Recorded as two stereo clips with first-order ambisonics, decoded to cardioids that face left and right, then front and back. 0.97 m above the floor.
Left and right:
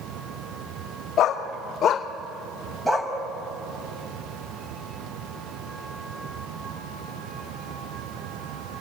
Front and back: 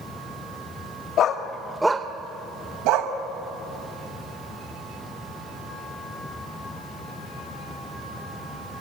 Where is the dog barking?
40° left, 1.3 m; by 3.1 s 175° right, 1.9 m.